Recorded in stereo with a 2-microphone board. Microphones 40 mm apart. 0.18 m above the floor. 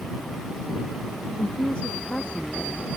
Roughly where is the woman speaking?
Left.